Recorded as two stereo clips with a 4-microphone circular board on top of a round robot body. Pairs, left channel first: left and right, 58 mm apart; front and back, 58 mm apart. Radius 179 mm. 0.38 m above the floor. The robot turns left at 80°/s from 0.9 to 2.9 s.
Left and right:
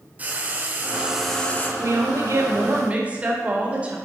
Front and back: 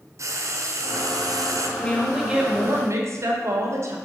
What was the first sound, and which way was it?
Frying, 150° right.